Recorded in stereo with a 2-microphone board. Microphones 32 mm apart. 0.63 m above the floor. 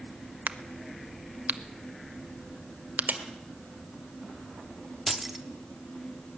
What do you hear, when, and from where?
0.5 s a crack: 70° right (ahead or behind), 0.7 m
3.1 s a clap: 75° right (ahead or behind), 1.7 m
5.1 s keys jangling: 5° right (ahead or behind), 0.8 m